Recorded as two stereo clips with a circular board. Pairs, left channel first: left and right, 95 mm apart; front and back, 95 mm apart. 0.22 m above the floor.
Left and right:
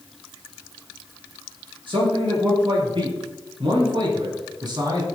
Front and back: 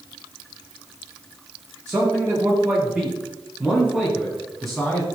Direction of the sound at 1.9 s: 120° right.